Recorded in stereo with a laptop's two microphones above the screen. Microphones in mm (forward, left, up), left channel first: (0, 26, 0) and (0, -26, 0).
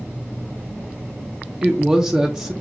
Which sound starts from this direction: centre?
A woman speaking, at 1.6 s.